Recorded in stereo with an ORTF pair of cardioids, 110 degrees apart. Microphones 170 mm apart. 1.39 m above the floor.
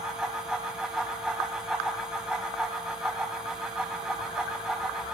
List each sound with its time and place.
0.0 s a fan: 5° right, 4 m